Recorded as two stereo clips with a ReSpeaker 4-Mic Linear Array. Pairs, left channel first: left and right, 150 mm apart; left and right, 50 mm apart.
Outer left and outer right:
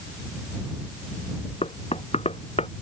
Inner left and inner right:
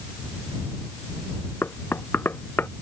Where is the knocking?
45° left (ahead or behind).